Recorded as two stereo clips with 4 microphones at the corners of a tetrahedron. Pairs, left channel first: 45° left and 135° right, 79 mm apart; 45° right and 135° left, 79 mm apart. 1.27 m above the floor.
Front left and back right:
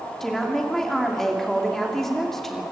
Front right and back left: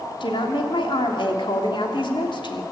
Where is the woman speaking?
40° right, 3 m.